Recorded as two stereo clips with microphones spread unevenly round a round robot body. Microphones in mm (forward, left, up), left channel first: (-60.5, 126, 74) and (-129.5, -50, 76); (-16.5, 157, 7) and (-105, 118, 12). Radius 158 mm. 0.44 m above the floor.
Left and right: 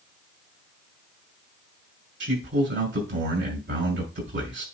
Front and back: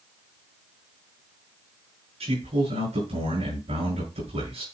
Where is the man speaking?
135° right, 6 m.